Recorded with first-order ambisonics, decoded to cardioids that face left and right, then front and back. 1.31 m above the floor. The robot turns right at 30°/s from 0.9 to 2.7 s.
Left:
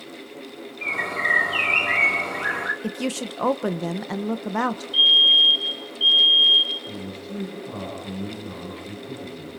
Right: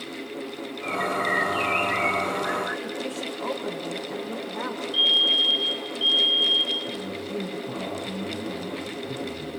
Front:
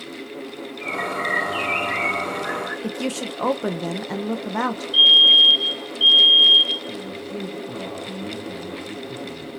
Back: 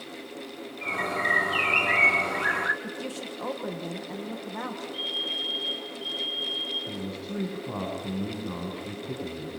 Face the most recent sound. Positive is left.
turn(degrees=170)